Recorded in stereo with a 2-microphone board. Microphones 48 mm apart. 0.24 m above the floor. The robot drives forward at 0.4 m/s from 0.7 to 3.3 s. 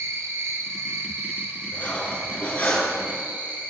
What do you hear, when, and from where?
0.0 s an insect: 65° right (ahead or behind), 1.5 m; by 3.7 s 40° right (ahead or behind), 2 m
1.7 s cutlery clinking: 35° left (ahead or behind), 1.9 m; by 3.0 s 30° left (ahead or behind), 2.5 m